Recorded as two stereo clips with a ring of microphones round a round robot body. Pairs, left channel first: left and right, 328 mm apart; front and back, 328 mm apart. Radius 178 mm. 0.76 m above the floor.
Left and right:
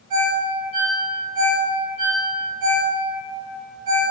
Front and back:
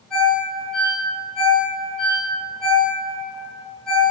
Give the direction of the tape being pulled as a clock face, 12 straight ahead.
I don't hear tape being pulled.